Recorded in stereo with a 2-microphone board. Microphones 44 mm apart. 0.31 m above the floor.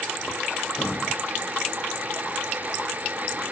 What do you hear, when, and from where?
0.8 s breathing: 35° left (ahead or behind), 1.3 m